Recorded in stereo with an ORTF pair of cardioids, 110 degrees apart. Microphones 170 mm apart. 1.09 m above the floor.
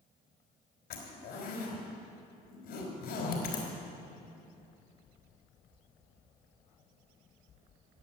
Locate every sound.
0.9 s a zipper: 65° left, 3.5 m